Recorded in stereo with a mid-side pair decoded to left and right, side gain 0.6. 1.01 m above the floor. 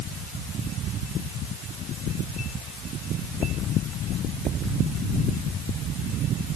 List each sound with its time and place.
Only background noise.